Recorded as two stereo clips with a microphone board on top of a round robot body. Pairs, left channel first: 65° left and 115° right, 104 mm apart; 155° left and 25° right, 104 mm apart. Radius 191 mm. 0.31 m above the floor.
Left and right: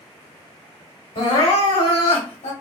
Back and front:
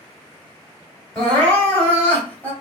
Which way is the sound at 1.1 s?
80° left.